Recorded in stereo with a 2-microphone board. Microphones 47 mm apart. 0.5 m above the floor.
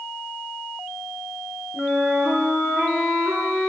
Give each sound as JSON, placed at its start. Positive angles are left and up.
{"t": 1.7, "sound": "a flute", "side_deg": -5, "distance_m": 4.0}